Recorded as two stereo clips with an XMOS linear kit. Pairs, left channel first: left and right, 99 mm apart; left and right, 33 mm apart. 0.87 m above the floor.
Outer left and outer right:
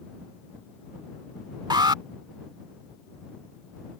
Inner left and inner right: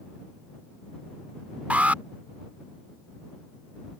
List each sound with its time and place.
1.7 s an alarm: 50° right (ahead or behind)